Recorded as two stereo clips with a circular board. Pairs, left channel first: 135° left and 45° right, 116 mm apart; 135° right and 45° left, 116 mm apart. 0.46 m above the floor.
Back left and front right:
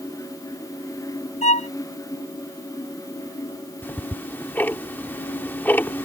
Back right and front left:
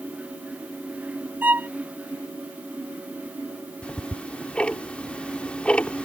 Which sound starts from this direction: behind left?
A violin, at 1.4 s.